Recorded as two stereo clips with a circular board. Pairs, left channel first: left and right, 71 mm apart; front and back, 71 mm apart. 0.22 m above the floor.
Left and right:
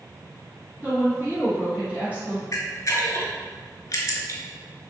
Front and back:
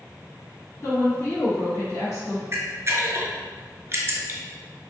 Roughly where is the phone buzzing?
No phone buzzing in this recording.